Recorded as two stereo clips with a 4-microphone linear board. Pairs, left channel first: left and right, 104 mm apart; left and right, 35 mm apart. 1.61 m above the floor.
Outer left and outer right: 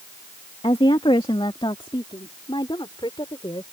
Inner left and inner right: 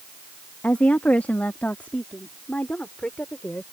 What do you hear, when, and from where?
0.6 s a woman speaking: 60° left (ahead or behind); by 3.6 s 50° left (ahead or behind)